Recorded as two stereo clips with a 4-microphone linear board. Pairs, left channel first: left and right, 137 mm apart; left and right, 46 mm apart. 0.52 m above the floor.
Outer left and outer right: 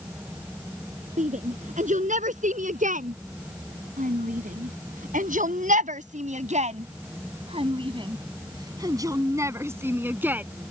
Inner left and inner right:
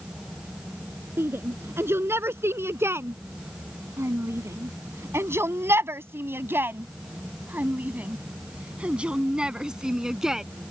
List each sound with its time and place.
1.2 s a shout: 60° right (ahead or behind); by 10.4 s 10° right (ahead or behind)